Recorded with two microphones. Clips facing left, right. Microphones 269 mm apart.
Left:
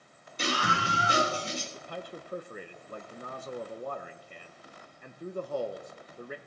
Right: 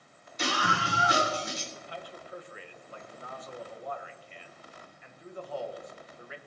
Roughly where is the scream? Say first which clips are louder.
Even; left.